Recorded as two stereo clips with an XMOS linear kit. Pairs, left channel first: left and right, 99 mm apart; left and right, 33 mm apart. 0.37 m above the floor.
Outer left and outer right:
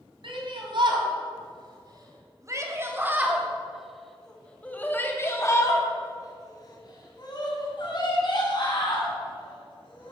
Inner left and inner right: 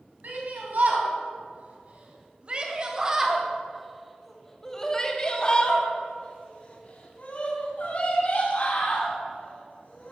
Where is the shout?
60° right (ahead or behind), 3 m; by 10.1 s 60° left (ahead or behind), 4.5 m.